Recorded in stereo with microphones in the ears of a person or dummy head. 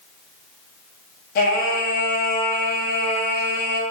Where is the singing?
55° left (ahead or behind), 1.0 m.